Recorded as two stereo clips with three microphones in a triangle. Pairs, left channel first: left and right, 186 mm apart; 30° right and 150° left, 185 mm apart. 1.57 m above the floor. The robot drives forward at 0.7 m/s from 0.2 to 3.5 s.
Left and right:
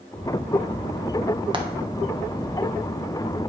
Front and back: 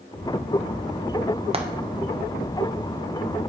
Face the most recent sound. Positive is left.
turn(degrees=-170)